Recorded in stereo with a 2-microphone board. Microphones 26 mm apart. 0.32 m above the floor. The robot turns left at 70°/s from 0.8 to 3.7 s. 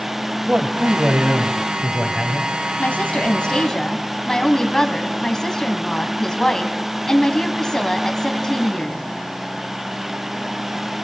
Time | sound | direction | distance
0.5 | a man speaking | 75° right | 2.5 m
2.8 | a woman speaking | 90° left | 2.5 m